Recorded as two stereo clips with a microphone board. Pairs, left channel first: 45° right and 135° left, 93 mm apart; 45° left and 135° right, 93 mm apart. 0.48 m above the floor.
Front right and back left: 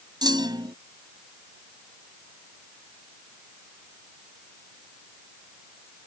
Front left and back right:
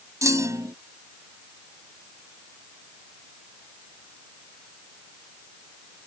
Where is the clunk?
170° left.